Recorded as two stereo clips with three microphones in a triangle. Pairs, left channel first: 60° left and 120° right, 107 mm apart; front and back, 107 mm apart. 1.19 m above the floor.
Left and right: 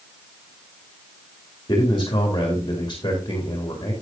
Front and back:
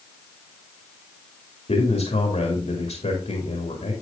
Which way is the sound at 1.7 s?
5° left.